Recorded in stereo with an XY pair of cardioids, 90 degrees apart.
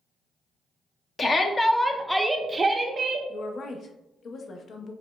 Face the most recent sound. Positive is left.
turn(degrees=60)